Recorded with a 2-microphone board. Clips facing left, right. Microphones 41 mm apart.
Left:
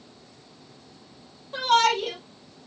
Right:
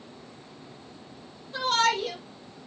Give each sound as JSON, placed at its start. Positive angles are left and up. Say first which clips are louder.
{"t": 1.5, "sound": "a shout", "louder": "left 4 dB", "side_deg": 45, "distance_m": 3.5}